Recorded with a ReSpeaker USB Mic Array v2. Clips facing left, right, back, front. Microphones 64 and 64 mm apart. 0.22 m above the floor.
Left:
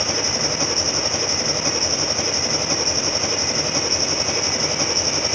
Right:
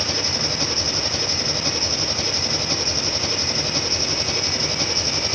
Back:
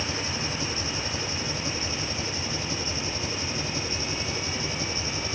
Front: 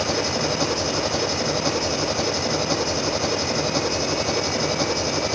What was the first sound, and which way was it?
An engine running, 15° left.